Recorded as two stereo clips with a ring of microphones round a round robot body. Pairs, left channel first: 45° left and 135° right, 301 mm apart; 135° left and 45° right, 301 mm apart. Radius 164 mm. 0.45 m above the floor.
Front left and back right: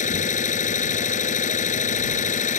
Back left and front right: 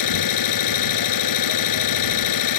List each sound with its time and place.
0.0 s an engine running: 110° left